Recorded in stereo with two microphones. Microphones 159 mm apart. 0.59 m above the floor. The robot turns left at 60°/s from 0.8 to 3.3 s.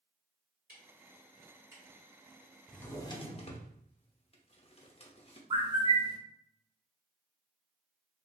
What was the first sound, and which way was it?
Ticking, 65° right (ahead or behind).